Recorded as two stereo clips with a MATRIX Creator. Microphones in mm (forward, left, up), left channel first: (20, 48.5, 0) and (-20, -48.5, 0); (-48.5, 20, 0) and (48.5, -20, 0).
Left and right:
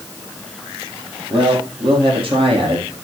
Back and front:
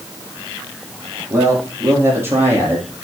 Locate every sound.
1.3 s a man speaking: 85° right, 5 m; by 2.9 s 90° right, 4.5 m